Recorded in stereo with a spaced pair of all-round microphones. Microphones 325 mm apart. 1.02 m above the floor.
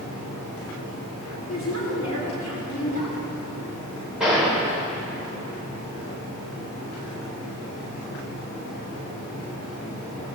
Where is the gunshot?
Centre (ahead or behind), 3.5 m.